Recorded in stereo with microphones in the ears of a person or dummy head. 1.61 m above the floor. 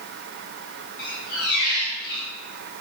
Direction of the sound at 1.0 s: 55° left (ahead or behind).